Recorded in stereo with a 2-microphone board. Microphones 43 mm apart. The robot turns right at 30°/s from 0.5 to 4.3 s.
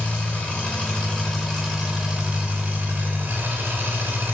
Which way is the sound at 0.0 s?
145° left.